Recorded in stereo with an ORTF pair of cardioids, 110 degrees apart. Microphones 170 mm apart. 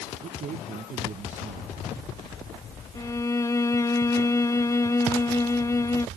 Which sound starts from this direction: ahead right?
A man speaking, at 0.2 s.